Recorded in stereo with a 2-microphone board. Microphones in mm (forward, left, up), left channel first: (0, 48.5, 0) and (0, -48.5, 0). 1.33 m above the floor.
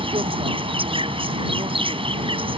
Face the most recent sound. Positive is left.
turn(degrees=-70)  # may be behind; listen again after turning